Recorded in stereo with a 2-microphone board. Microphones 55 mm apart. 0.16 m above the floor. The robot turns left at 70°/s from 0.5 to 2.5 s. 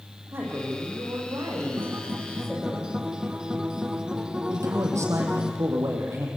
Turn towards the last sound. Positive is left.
turn(degrees=-65)  # may be behind; listen again after turning